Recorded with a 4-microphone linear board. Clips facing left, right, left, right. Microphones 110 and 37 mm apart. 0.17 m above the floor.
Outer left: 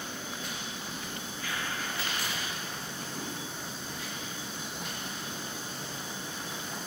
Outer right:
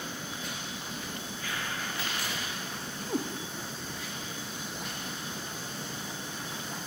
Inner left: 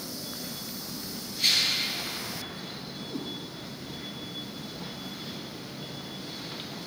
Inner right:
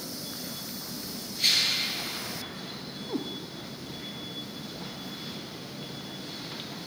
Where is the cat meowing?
75° right (ahead or behind), 7 m.